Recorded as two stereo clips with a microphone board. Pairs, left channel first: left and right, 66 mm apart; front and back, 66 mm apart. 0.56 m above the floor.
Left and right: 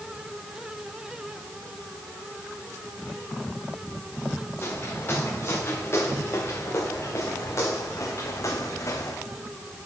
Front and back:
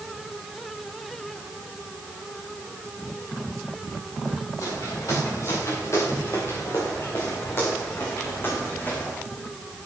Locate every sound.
4.6 s footsteps: 35° left, 5.5 m; by 9.2 s 60° left, 3 m